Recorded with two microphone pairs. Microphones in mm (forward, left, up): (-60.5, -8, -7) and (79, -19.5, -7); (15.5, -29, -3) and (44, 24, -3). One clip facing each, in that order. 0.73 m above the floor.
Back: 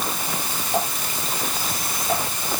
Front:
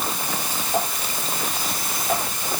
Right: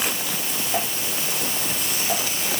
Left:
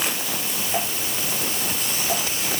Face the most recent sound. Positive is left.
No sound to turn to.